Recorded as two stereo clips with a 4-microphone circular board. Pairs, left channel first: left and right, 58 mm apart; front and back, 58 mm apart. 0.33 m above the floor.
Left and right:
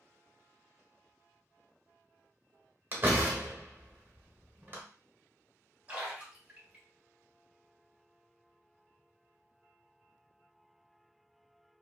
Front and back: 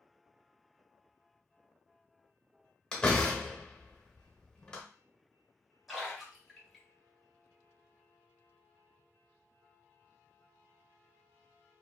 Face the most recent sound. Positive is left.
turn(degrees=-90)